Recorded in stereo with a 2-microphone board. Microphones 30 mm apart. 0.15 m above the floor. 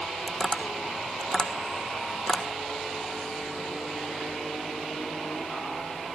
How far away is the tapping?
About 1.3 m.